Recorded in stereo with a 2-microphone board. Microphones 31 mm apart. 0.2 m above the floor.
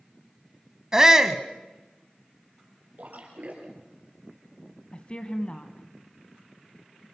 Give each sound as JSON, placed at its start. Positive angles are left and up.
{"t": 0.9, "sound": "a shout", "side_deg": -20, "distance_m": 1.2}
{"t": 3.0, "sound": "a splash", "side_deg": -60, "distance_m": 4.5}
{"t": 4.9, "sound": "a woman speaking", "side_deg": 35, "distance_m": 1.7}